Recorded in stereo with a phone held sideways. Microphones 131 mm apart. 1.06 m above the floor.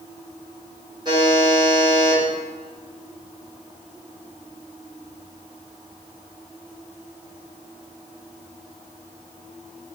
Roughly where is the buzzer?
Right.